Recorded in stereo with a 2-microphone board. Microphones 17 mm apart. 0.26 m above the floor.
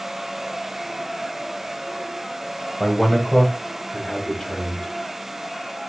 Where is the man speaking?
15° left (ahead or behind), 1.1 m; by 4.9 s 40° left (ahead or behind), 1.4 m.